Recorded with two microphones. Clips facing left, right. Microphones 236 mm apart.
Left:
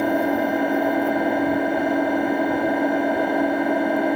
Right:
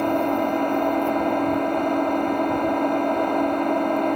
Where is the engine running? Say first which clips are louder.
Left 1 dB; 10° left (ahead or behind), 1.1 m.